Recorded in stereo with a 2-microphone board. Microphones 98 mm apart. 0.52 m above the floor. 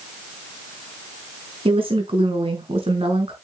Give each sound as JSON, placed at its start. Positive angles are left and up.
{"t": 1.6, "sound": "a woman speaking", "side_deg": -70, "distance_m": 4.5}